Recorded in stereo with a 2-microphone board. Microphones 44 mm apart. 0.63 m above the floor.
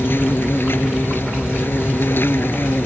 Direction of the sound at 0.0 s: 50° left (ahead or behind).